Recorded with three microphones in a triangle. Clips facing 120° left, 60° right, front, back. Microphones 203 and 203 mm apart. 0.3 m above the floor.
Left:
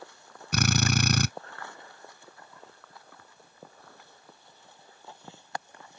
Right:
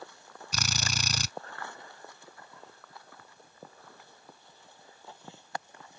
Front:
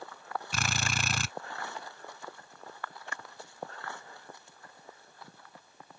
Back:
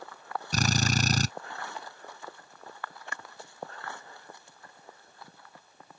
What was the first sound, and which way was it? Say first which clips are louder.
A drill: left 11 dB, back 10 dB; 135° left.